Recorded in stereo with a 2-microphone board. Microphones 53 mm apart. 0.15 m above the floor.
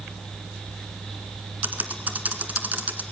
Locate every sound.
1.6 s typing on a keyboard: 35° right (ahead or behind), 1.7 m